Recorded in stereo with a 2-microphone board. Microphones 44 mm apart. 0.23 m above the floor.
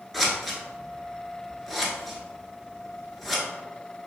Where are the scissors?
Centre (ahead or behind), 0.7 m.